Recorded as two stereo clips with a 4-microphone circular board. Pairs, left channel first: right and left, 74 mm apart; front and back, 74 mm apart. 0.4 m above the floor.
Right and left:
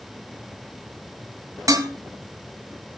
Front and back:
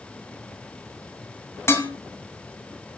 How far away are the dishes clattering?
About 2.5 m.